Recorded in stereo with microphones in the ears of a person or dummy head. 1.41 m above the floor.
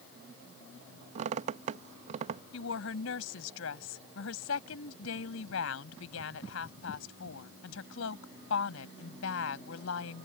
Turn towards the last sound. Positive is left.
turn(degrees=85)